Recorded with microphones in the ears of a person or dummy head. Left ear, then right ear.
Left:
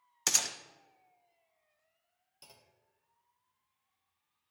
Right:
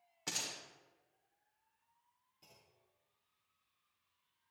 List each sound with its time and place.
0.3 s a gunshot: 70° left (ahead or behind), 0.8 m
2.4 s a clunk: 55° left (ahead or behind), 1.0 m